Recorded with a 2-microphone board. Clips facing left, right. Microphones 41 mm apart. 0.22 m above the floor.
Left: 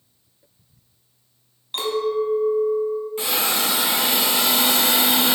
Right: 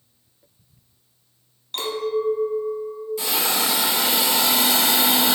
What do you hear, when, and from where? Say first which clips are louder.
1.7 s a clink: left 2 dB; 15° left (ahead or behind), 0.8 m
3.2 s a hiss: right 2 dB; 35° left (ahead or behind), 1.4 m